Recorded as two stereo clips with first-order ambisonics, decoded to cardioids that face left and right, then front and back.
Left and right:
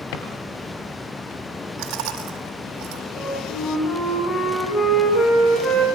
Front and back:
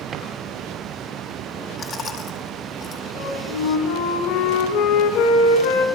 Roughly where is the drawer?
Behind left.